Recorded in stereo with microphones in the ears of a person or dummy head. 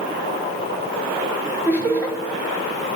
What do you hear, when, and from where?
1.6 s laughter: 10° right (ahead or behind), 3.5 m